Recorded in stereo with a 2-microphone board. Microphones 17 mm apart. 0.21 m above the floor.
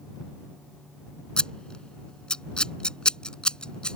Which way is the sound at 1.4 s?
60° left (ahead or behind).